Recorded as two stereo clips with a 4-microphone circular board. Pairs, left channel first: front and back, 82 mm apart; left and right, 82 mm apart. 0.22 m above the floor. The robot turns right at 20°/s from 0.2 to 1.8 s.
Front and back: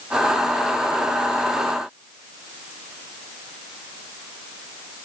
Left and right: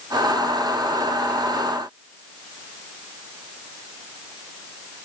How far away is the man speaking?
I don't hear a man speaking.